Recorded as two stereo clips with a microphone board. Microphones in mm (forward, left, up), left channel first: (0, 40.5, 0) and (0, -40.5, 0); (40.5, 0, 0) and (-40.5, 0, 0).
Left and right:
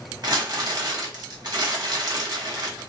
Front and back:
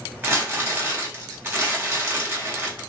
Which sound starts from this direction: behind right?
Crumpling, at 0.2 s.